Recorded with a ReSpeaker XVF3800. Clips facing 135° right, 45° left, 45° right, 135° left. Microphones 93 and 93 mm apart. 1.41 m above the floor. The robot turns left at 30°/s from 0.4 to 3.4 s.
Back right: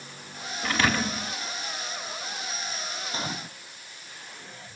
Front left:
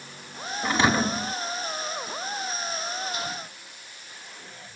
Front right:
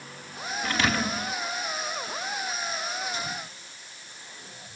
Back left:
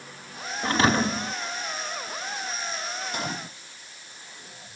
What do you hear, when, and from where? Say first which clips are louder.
0.6 s a thud: front left 3 dB, back left 5 dB; 110° left; by 1.3 s 90° left
3.1 s a gunshot: even, back left 2 dB; 170° left; by 3.6 s 160° left